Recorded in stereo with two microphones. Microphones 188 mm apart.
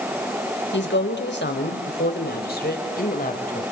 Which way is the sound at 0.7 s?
75° left (ahead or behind).